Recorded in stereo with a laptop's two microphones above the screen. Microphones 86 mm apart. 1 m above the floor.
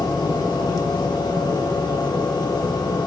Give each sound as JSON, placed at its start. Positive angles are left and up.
{"t": 0.0, "sound": "a machine running", "side_deg": 55, "distance_m": 0.9}